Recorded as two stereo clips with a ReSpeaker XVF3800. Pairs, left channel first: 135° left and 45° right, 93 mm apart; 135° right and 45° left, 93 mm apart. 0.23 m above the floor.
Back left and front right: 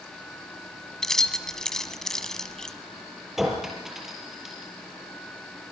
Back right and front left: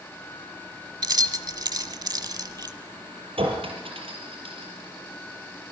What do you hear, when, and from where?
1.0 s keys jangling: 55° left, 1.2 m
3.4 s a clink: 40° left, 5 m